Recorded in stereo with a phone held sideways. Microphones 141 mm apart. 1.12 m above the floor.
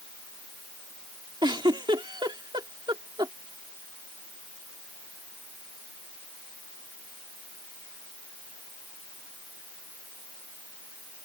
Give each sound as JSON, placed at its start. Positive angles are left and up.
{"t": 1.4, "sound": "a giggle", "side_deg": -30}